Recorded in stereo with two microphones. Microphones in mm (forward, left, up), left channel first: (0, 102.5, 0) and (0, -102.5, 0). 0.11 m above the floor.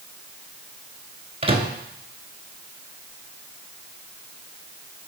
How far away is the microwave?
About 1.0 m.